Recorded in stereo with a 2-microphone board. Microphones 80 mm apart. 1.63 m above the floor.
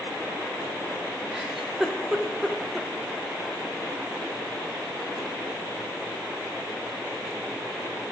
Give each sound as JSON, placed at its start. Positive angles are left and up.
{"t": 1.3, "sound": "a giggle", "side_deg": -5, "distance_m": 0.8}